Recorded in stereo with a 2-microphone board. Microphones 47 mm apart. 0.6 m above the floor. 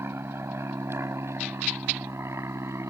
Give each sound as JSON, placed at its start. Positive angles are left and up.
{"t": 0.0, "sound": "an aircraft", "side_deg": -65}